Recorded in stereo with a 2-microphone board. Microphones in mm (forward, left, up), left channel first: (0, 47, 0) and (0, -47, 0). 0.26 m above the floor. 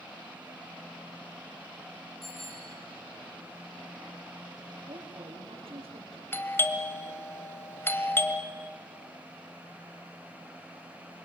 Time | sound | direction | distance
2.2 | a bicycle bell | 5° left (ahead or behind) | 9.5 m
4.9 | a woman speaking | 80° right | 5.5 m
6.3 | a doorbell | 25° left (ahead or behind) | 1.5 m